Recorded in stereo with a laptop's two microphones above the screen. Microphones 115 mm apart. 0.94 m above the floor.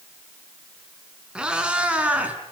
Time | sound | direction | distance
1.4 | a cat meowing | 10° right (ahead or behind) | 4 m